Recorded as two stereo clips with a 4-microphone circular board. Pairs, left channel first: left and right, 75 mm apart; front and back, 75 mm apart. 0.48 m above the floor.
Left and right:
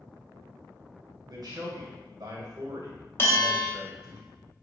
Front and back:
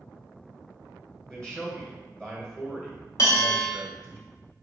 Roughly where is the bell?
Ahead left.